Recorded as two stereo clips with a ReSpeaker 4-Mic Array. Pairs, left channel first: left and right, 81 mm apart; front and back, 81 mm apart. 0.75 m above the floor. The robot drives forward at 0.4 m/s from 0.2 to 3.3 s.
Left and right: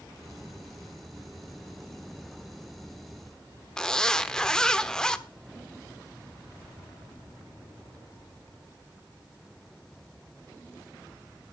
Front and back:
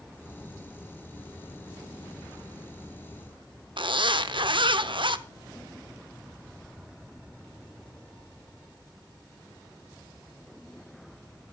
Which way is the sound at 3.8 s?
170° left.